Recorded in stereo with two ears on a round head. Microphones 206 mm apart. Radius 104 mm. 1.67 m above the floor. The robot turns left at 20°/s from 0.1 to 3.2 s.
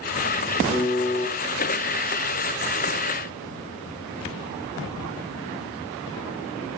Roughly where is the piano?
Left.